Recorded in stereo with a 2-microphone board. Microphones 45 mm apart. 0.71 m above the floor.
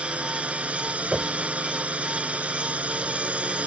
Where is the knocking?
25° right (ahead or behind).